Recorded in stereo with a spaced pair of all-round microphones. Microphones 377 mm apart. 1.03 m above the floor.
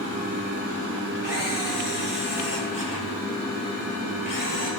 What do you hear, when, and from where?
1.2 s a camera shutter: 60° left (ahead or behind), 2 m